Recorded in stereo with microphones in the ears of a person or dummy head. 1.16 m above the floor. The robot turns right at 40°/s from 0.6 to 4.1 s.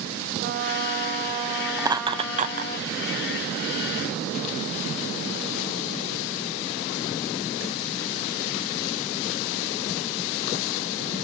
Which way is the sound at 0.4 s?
50° right.